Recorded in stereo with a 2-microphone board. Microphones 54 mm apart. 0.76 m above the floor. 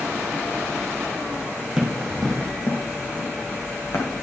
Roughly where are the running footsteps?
Centre.